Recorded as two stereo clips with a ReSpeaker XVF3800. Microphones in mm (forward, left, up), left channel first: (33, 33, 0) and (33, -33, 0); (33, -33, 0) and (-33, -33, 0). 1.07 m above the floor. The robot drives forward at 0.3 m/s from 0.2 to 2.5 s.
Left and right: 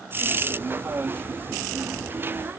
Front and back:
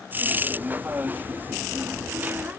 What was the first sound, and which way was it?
Only background noise.